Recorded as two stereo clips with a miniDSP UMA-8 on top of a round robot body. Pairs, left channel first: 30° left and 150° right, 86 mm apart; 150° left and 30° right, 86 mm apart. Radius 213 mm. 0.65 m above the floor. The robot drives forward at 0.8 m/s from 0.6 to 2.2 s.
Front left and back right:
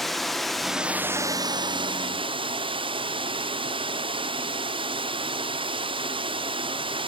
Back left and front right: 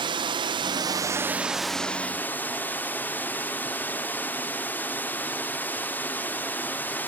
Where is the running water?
60° right, 0.8 m; by 7.1 s 140° right, 1.1 m.